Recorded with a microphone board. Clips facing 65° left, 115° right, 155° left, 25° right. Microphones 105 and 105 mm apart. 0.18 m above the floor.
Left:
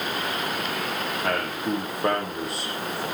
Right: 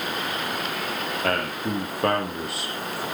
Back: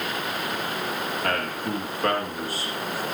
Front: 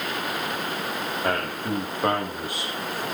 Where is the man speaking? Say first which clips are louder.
Right 1 dB, front 2 dB; 95° right, 7 m.